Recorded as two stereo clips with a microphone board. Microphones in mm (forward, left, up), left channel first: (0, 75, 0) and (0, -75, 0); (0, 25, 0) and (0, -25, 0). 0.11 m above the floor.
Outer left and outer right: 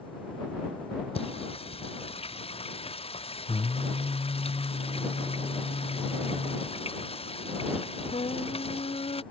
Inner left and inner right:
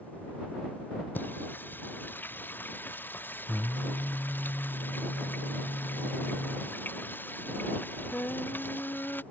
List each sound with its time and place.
1.1 s singing: 40° left (ahead or behind)